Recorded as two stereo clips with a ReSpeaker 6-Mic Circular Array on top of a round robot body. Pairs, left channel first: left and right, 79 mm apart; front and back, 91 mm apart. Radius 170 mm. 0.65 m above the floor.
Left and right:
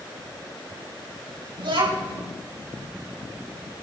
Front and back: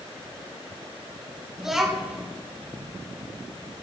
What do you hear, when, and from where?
1.6 s a child speaking: 95° right, 5 m